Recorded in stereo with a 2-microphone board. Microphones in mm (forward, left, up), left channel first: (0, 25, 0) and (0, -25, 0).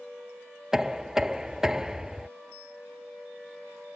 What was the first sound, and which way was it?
Knocking, 10° right (ahead or behind).